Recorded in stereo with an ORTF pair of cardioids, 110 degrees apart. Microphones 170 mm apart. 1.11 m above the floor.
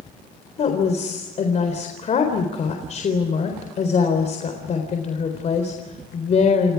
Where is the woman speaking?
45° left, 4 m.